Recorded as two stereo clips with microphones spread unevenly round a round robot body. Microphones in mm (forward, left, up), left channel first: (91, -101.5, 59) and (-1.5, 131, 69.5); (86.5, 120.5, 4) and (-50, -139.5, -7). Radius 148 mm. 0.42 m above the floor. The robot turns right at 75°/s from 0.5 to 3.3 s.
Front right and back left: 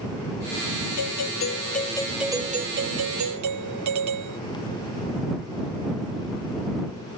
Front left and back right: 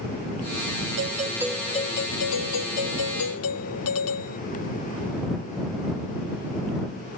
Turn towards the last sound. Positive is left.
turn(degrees=105)